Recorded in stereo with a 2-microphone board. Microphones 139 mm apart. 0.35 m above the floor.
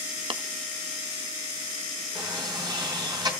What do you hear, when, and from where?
0.3 s tapping: 40° right (ahead or behind), 0.5 m
2.1 s a sliding door: 30° right (ahead or behind), 3 m